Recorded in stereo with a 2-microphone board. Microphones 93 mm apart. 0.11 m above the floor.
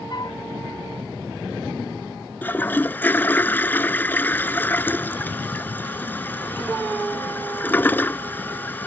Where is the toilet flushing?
20° left (ahead or behind).